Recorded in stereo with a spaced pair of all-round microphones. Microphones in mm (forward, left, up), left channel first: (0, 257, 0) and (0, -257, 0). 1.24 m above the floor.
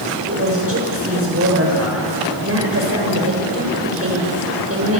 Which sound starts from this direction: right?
A woman speaking, at 0.3 s.